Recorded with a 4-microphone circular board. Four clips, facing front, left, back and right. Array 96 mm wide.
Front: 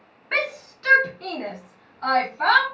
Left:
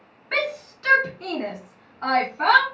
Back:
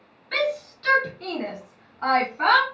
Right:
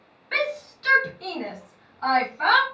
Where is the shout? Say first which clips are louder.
Even, back 2 dB; 20° left, 0.9 m; by 2.6 s 150° left, 1.2 m.